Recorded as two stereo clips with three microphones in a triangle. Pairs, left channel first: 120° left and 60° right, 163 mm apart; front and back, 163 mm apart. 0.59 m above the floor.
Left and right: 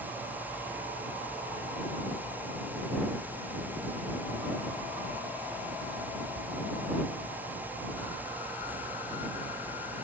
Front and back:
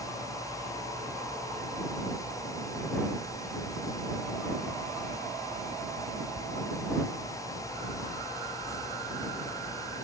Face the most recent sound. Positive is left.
No sound to turn to.